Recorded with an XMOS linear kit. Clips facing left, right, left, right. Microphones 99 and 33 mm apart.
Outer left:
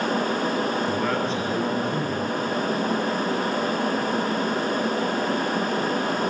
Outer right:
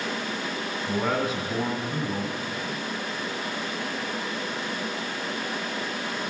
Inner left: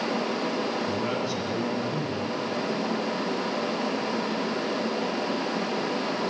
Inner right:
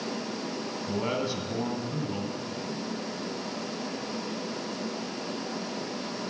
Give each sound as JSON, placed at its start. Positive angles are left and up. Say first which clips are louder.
{"t": 0.9, "sound": "a man speaking", "louder": "outer left 2 dB, inner left 2 dB", "side_deg": -5, "distance_m": 2.0}